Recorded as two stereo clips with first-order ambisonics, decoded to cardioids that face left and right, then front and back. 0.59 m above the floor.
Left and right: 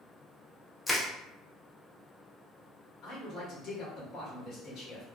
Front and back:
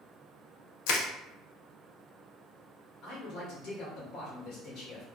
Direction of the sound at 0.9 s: 5° left.